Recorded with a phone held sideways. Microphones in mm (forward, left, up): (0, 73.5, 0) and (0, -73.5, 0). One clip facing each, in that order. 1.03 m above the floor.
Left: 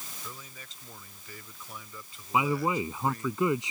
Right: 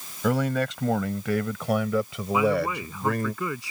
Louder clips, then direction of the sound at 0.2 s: Right 26 dB; 85° right.